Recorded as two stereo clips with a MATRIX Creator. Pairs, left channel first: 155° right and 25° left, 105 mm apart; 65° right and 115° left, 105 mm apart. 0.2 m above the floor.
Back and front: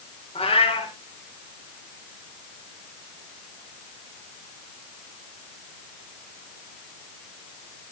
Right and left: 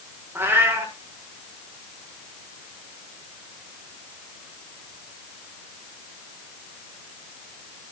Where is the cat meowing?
Straight behind, 5 m.